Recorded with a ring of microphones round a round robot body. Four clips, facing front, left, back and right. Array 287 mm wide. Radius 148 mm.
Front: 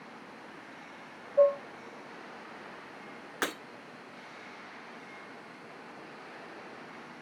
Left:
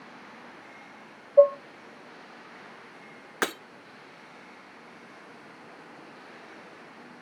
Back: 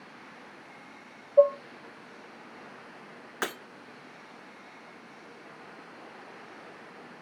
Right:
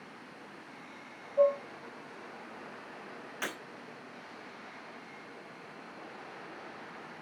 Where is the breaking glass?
90° left, 2.0 m.